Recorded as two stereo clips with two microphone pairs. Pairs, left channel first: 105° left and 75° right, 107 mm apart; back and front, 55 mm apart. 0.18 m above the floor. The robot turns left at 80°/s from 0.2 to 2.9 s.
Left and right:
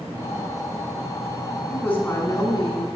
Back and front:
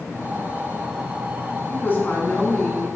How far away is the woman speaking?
About 1.4 m.